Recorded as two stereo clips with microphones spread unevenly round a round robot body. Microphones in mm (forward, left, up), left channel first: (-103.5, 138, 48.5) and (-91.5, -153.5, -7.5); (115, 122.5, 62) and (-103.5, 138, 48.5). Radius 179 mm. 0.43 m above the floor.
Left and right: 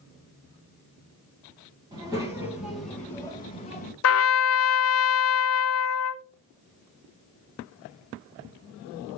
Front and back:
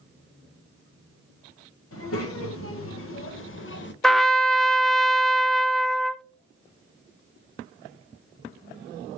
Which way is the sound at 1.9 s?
15° right.